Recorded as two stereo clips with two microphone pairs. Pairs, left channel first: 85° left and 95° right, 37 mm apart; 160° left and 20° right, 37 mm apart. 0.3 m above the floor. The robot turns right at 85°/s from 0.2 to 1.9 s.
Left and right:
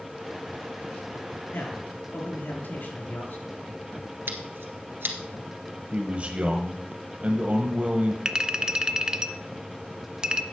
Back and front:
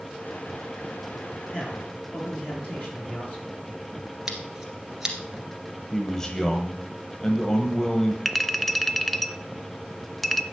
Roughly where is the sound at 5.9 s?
Behind right.